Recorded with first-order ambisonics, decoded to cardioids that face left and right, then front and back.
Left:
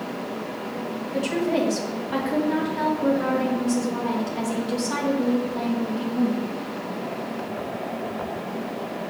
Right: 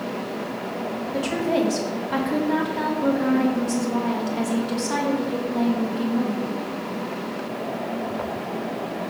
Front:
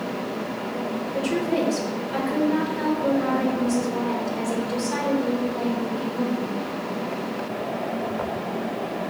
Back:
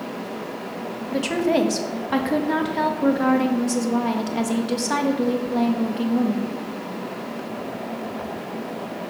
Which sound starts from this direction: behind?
A woman speaking, at 1.1 s.